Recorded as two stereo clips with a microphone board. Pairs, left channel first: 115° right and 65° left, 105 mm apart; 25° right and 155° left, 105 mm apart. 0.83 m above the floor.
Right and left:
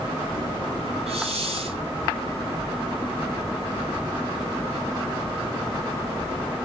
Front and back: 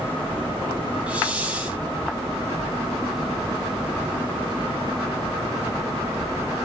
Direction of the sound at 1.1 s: 80° left.